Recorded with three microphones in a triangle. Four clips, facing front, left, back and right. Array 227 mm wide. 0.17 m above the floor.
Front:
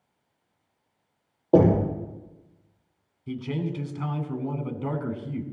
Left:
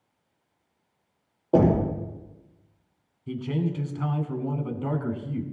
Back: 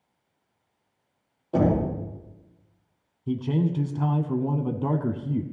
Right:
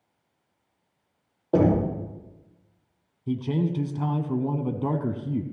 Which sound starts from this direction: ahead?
Knocking, at 1.5 s.